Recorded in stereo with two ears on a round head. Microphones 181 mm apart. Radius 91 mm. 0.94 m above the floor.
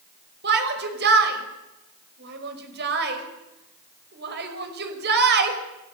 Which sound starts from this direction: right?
A shout, at 0.4 s.